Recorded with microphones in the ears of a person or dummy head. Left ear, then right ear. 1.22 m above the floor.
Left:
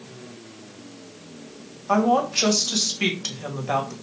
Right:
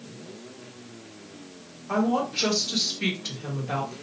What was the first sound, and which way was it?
A woman speaking, 80° left.